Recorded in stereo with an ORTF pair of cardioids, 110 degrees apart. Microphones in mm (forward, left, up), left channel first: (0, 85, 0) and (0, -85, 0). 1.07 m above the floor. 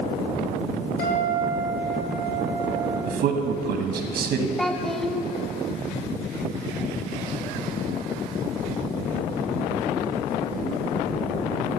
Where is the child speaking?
Straight ahead, 0.6 m.